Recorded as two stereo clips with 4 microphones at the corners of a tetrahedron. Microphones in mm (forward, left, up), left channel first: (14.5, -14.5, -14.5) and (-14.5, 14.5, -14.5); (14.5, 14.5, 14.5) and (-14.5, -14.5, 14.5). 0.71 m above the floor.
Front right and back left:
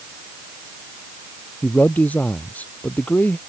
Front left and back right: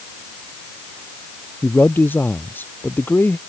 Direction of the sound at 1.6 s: 10° left.